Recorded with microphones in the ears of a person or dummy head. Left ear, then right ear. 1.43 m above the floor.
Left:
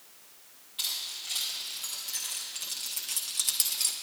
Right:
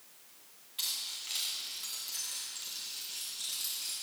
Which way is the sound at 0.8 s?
20° right (ahead or behind).